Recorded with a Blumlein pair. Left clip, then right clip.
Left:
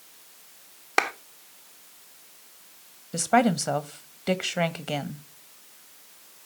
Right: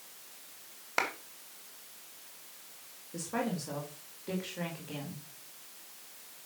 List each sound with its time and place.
1.0 s a clap: 65° left, 1.2 m
3.1 s a woman speaking: 50° left, 1.2 m